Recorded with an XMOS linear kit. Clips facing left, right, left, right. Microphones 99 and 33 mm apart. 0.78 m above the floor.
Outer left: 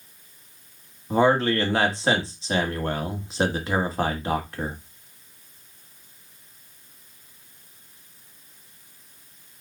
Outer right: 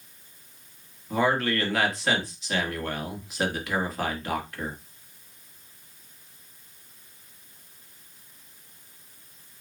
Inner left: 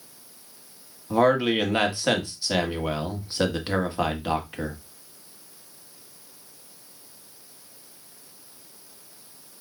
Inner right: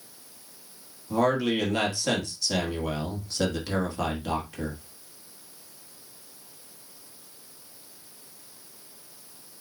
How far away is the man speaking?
About 1.5 m.